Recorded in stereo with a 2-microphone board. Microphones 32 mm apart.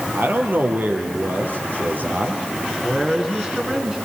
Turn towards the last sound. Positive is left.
turn(degrees=-15)  # may be behind; listen again after turning